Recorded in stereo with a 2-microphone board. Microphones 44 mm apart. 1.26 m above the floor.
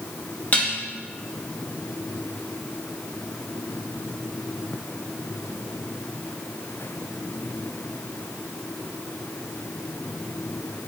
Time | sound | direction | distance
0.5 | dishes clattering | 40° left (ahead or behind) | 1.2 m